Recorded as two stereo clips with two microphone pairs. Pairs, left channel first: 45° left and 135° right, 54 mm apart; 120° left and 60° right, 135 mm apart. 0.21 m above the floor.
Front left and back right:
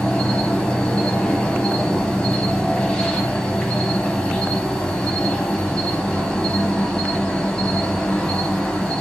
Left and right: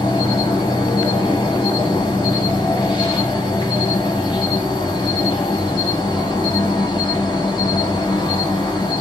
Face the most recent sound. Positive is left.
turn(degrees=105)